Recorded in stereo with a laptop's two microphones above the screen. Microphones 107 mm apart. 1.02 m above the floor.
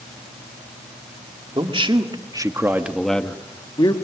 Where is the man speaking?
55° right (ahead or behind), 2.5 m; by 4.0 s 45° left (ahead or behind), 1.7 m.